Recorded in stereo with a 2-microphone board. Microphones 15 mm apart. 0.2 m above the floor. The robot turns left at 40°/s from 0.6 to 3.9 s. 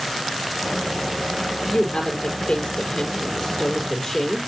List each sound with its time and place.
1.7 s a woman speaking: 125° left, 6 m; by 4.4 s 35° left, 6 m